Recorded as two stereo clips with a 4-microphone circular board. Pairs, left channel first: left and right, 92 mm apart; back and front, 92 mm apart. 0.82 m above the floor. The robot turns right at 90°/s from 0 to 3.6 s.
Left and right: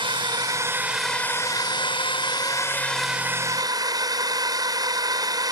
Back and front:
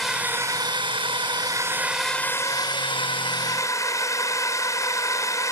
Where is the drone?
95° right; by 5.5 s 130° right.